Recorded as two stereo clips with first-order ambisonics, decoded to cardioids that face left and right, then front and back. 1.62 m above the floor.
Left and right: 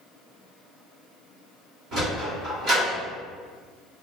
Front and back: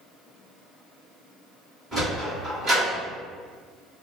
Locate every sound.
1.9 s a sliding door: 115° right, 1.8 m